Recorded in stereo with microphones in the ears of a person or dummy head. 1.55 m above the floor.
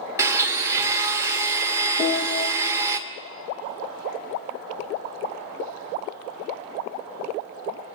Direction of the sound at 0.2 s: 20° right (ahead or behind).